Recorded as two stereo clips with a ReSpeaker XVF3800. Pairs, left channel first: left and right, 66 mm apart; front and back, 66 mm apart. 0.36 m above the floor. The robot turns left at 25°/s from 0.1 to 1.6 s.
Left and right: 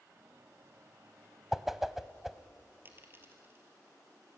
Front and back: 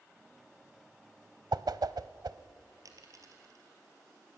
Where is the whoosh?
175° right, 0.7 m.